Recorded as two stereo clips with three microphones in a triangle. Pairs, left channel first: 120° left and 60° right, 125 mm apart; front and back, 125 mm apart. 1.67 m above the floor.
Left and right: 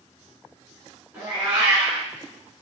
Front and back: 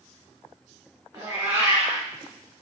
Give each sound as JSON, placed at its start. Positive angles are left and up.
{"t": 1.1, "sound": "a cat meowing", "azimuth_deg": -125, "distance_m": 1.8}